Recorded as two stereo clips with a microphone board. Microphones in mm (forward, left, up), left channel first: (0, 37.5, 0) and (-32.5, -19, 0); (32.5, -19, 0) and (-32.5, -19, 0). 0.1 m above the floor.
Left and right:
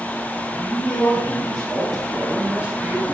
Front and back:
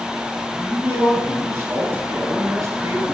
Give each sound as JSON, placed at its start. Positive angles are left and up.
{"t": 0.6, "sound": "a man speaking", "azimuth_deg": 120, "distance_m": 2.5}